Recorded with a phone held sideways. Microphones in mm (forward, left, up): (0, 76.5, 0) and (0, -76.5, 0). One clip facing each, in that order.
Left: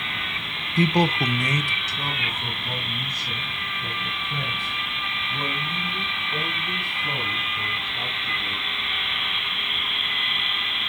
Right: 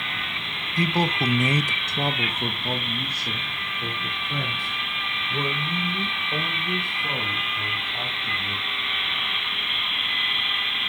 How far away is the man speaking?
About 0.7 m.